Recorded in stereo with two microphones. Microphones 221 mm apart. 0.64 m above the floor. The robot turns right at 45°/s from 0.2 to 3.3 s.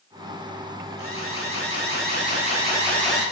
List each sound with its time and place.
1.0 s an alarm: 85° left, 7 m; by 3.2 s 175° right, 7 m